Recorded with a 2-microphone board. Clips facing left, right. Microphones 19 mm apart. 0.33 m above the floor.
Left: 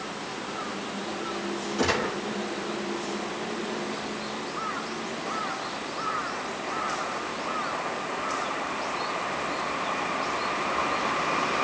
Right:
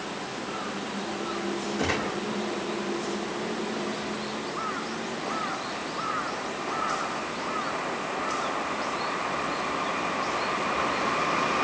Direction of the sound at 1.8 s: 85° left.